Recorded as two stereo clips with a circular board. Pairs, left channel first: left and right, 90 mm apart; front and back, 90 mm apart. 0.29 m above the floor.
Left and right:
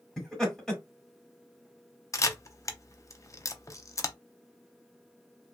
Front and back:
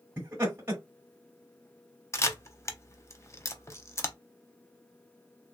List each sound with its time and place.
0.2 s laughter: straight behind, 1.0 m
2.1 s a camera shutter: 50° left, 0.5 m